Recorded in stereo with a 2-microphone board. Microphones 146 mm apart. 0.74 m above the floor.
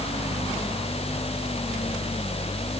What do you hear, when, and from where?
Only background noise.